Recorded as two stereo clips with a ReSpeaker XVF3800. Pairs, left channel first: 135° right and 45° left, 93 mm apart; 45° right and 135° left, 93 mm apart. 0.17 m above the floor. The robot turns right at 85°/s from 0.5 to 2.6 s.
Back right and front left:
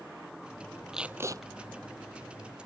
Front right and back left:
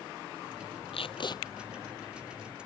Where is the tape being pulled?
40° right; by 1.4 s straight ahead.